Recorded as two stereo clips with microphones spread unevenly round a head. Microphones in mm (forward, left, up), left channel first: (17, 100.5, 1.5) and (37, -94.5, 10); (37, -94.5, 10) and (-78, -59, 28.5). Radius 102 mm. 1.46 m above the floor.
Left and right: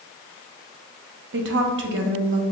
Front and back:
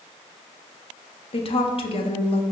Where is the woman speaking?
60° right, 0.8 m.